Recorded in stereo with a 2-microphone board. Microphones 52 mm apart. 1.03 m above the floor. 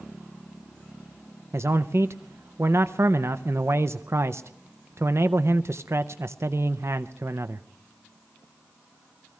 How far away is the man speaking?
About 0.5 m.